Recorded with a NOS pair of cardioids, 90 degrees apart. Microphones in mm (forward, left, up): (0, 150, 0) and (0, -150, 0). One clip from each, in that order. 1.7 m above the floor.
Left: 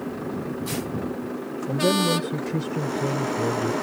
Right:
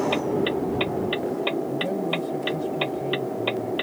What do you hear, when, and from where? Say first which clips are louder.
1.7 s a man speaking: left 4 dB; 65° left